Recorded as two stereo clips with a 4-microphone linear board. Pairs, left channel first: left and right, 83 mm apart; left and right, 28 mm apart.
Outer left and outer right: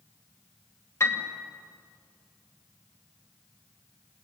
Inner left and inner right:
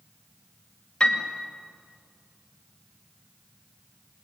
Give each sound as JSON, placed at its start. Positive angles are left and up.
{"t": 1.0, "sound": "a piano", "side_deg": 35, "distance_m": 2.5}